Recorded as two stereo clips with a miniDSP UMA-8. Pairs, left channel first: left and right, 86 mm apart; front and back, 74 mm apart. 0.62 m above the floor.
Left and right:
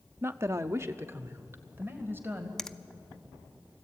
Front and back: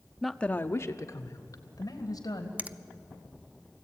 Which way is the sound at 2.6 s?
165° left.